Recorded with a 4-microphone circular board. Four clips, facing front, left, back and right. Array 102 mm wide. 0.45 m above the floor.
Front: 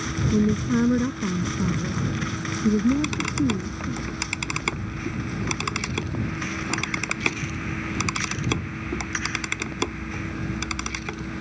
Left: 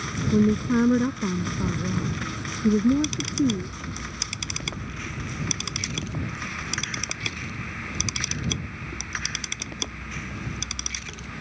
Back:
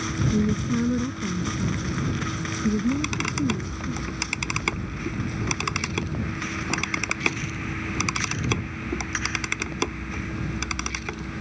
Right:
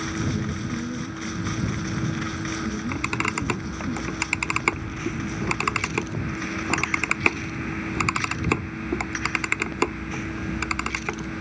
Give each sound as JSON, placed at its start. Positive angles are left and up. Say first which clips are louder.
{"t": 0.3, "sound": "a woman speaking", "louder": "left 9 dB, front 4 dB", "azimuth_deg": 70}
{"t": 2.7, "sound": "a camera shutter", "louder": "left 8 dB, front 5 dB", "azimuth_deg": -90}